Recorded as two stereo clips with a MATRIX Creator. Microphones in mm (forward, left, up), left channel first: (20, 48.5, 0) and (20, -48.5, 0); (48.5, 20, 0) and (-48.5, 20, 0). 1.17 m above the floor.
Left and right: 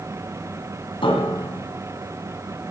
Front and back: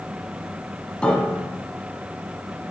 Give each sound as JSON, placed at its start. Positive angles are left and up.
{"t": 1.0, "sound": "a piano", "azimuth_deg": 80, "distance_m": 2.0}